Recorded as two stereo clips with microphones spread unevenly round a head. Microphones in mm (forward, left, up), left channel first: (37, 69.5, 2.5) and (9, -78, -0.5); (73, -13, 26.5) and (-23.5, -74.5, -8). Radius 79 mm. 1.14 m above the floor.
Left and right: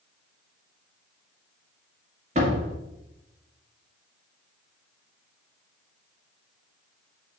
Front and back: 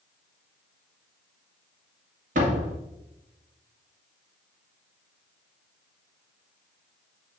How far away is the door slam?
About 1.9 m.